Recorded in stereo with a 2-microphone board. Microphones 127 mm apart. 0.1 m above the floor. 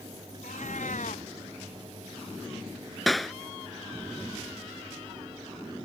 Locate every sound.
0.4 s a cat meowing: 80° left
3.1 s a clap: centre (ahead or behind)